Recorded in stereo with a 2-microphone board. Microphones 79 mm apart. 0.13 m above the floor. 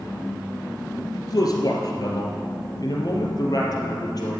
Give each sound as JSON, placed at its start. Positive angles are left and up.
{"t": 1.1, "sound": "a man speaking", "side_deg": 50, "distance_m": 2.0}